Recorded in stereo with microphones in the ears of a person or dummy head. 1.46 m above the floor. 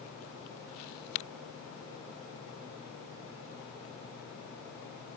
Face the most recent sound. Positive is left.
No sound to turn to.